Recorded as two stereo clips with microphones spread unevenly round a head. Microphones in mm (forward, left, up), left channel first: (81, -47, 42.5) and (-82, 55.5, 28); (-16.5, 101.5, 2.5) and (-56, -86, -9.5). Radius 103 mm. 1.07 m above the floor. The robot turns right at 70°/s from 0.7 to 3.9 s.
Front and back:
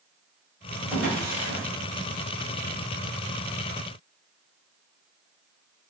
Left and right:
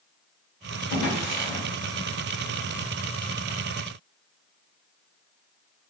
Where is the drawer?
90° left, 1.6 m; by 1.6 s 140° left, 1.6 m.